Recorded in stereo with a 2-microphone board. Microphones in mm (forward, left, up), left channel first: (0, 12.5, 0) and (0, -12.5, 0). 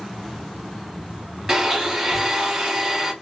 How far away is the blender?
About 2.5 m.